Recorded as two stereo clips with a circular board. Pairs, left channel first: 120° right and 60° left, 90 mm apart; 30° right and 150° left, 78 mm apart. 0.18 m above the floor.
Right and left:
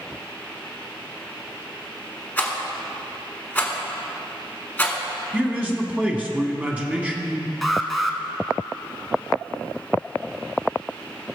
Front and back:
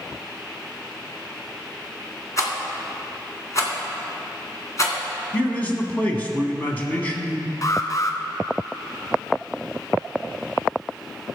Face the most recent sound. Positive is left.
turn(degrees=-30)